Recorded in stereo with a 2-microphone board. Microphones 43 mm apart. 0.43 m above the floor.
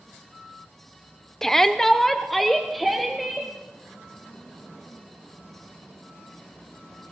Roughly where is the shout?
Centre.